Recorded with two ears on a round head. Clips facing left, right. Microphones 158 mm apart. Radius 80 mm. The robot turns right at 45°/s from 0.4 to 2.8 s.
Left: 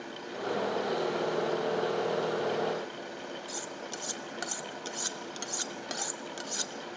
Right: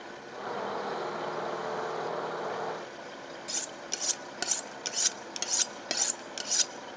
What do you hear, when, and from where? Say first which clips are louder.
3.5 s cutlery clinking: left 2 dB; 25° right (ahead or behind), 0.6 m